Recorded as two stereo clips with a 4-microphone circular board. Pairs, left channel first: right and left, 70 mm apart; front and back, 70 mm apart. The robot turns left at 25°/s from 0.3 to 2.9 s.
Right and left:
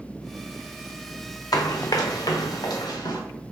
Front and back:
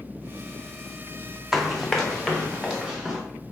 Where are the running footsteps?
95° right, 0.5 m; by 3.2 s 105° right, 1.6 m.